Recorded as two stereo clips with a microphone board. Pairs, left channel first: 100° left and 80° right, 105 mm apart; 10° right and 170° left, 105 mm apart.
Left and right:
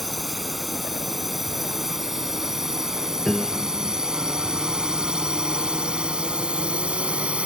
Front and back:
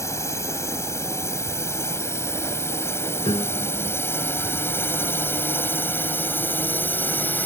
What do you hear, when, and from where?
0.0 s a drone: 10° left; by 7.5 s 25° right
3.2 s a piano: 15° left